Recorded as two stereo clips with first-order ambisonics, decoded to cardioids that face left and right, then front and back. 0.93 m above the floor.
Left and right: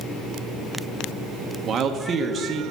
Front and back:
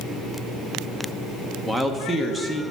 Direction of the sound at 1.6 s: 105° right.